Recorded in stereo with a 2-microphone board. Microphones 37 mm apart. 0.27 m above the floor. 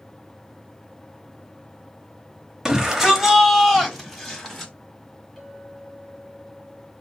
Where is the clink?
5° right (ahead or behind), 2 m.